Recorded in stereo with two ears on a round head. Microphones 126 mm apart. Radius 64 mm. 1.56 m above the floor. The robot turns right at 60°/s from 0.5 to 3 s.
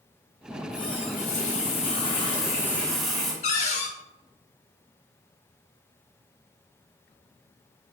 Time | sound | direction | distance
0.5 | a running tap | 30° left | 1.1 m
3.4 | a cupboard door | 50° left (ahead or behind) | 0.7 m